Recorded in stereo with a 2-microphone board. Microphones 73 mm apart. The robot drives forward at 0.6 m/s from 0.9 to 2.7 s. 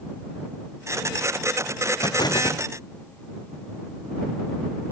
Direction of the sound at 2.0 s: 75° left (ahead or behind).